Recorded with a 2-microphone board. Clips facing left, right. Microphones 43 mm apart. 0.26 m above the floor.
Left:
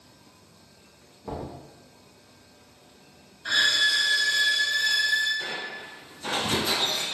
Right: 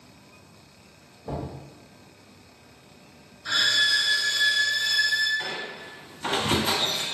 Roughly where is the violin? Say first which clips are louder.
Even; left.